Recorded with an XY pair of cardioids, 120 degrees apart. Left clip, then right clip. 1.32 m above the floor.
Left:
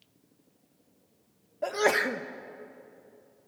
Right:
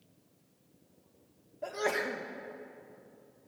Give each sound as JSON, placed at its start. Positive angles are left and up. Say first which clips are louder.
{"t": 1.6, "sound": "a sneeze", "louder": "left 7 dB", "azimuth_deg": 40, "distance_m": 0.9}